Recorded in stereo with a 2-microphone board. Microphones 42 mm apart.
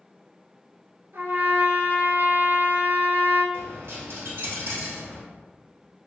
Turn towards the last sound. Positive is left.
turn(degrees=-65)  # may be behind; listen again after turning